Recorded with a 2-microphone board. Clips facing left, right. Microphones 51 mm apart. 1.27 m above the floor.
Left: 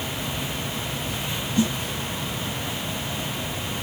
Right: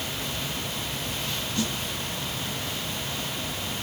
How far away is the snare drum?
About 0.8 m.